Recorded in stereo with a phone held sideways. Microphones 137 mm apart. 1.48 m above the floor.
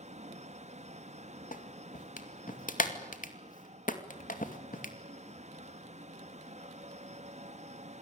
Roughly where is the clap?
Left.